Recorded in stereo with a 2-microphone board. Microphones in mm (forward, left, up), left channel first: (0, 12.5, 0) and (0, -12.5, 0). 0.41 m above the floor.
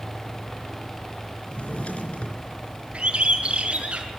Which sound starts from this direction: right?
A bird, at 2.9 s.